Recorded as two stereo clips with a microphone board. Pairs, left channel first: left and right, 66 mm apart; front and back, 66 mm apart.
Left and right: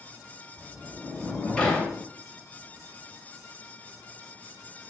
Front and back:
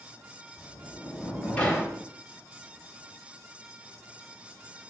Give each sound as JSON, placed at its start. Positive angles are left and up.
{"t": 0.6, "sound": "a sliding door", "azimuth_deg": 40, "distance_m": 0.9}